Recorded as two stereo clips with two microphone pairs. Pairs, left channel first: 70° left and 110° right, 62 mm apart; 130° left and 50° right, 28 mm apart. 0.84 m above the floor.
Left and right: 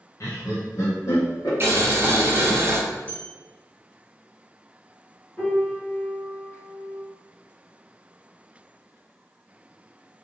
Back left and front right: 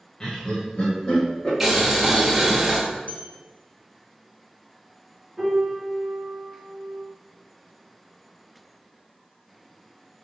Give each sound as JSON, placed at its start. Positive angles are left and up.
{"t": 0.2, "sound": "laughter", "azimuth_deg": 80, "distance_m": 0.5}
{"t": 1.6, "sound": "boiling", "azimuth_deg": -125, "distance_m": 0.7}
{"t": 3.1, "sound": "a bell", "azimuth_deg": 135, "distance_m": 0.9}
{"t": 5.4, "sound": "a piano", "azimuth_deg": 35, "distance_m": 1.1}